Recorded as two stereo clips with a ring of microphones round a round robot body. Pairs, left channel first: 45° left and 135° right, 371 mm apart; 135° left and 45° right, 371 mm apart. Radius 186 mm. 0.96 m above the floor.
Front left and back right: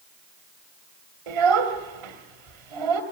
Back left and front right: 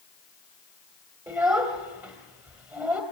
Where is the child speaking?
125° right, 2.5 m.